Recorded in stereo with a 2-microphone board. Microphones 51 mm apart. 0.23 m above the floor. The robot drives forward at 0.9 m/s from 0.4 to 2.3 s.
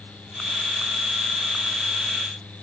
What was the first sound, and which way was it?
Only background noise.